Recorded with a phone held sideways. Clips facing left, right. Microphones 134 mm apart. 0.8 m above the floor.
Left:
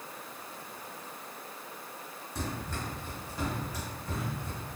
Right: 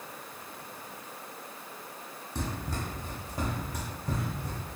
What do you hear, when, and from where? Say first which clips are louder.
2.4 s running footsteps: right 2 dB; 25° right (ahead or behind), 1.9 m; by 4.6 s 60° right (ahead or behind), 3 m